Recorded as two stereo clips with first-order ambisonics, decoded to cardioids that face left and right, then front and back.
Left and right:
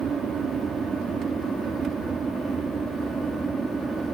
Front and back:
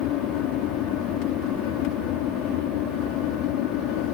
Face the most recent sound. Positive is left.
turn(degrees=-15)